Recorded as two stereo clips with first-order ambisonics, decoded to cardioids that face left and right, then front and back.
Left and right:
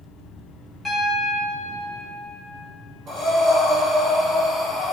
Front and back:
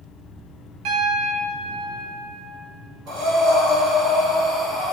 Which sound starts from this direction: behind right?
Breathing, at 3.1 s.